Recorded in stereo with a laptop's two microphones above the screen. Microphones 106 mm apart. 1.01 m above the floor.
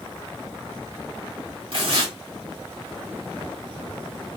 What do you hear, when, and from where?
1.7 s tearing paper: 55° right (ahead or behind), 1.2 m